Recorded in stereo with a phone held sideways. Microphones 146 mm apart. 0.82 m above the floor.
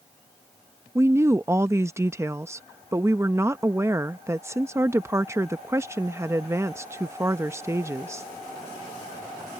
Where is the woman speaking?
20° right (ahead or behind).